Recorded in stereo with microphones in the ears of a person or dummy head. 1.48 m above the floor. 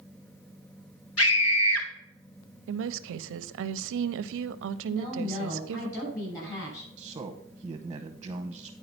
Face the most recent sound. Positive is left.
turn(degrees=-25)  # may be behind; listen again after turning